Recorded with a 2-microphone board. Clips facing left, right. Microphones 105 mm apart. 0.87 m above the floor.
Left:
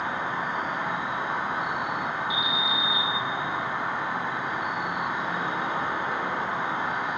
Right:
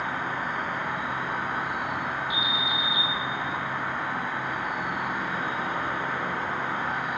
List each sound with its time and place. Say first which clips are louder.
0.0 s an insect: left 1 dB; 20° left (ahead or behind), 1.3 m
2.3 s an alarm: left 1 dB; centre (ahead or behind), 2.5 m